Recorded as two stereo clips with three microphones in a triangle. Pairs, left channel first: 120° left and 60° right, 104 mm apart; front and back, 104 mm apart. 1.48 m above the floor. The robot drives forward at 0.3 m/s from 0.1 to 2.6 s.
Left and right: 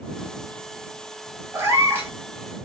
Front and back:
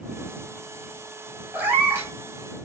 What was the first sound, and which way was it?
A cat meowing, 115° right.